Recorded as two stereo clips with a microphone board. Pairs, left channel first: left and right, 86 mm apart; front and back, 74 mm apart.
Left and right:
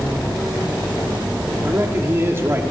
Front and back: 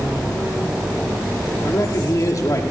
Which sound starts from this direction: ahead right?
A man speaking, at 1.6 s.